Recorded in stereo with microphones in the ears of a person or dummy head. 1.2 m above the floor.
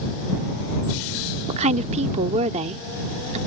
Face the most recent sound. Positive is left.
turn(degrees=-35)  # may be behind; listen again after turning